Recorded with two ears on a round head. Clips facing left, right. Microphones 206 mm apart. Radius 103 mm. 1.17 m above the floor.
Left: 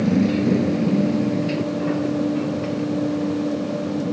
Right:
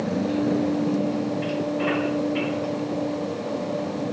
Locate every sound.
0.0 s a motorcycle: 35° left (ahead or behind); by 4.1 s 25° left (ahead or behind)